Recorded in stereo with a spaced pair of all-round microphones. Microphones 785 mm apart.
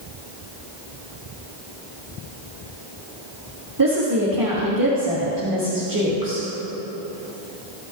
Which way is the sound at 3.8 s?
25° right (ahead or behind).